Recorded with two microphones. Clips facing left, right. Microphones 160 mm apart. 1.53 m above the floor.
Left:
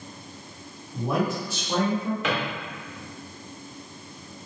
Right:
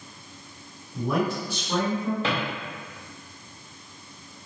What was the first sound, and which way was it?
A man speaking, 15° left (ahead or behind).